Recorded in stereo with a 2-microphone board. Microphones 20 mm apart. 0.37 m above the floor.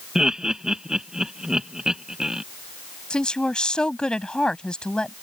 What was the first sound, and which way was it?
Laughter, 35° right (ahead or behind).